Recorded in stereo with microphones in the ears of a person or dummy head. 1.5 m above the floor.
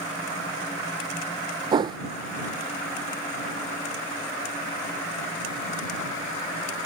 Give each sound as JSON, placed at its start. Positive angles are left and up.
{"t": 1.7, "sound": "a whoosh", "side_deg": -25}